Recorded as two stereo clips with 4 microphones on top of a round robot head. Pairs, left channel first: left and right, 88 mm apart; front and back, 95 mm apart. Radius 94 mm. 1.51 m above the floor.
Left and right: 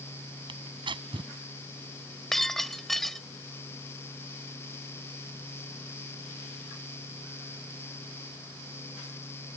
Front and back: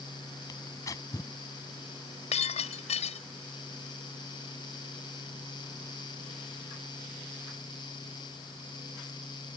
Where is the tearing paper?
60° right.